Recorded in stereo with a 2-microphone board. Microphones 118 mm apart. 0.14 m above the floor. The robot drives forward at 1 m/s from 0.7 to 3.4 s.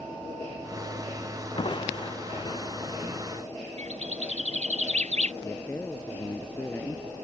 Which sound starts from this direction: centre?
A man speaking, at 5.4 s.